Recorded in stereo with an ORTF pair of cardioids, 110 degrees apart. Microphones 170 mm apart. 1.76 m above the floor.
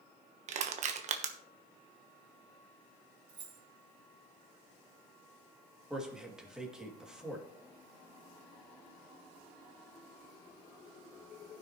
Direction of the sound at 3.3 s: 55° right.